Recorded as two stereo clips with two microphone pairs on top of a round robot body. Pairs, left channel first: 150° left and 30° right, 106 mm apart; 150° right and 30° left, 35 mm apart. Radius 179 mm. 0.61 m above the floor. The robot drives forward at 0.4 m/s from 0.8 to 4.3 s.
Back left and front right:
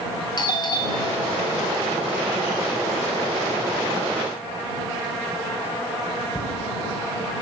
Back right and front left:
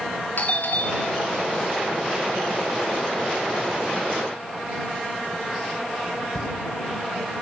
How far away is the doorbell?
About 3 m.